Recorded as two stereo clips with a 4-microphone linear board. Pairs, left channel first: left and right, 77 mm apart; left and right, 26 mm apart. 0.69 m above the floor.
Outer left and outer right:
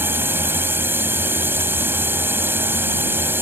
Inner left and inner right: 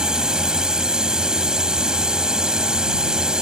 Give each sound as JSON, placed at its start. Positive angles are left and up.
{"t": 0.0, "sound": "a drone", "side_deg": -30}